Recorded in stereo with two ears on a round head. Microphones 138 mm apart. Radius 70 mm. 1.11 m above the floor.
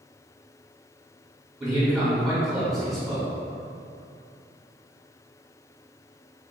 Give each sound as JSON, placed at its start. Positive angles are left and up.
{"t": 1.6, "sound": "a man speaking", "side_deg": 0, "distance_m": 1.6}